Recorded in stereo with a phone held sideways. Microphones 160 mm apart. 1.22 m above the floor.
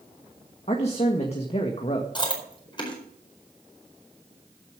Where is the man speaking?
40° left (ahead or behind), 1.6 m.